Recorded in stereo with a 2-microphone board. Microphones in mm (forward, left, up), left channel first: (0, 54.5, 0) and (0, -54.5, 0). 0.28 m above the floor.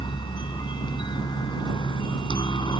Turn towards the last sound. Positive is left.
turn(degrees=45)  # may be behind; listen again after turning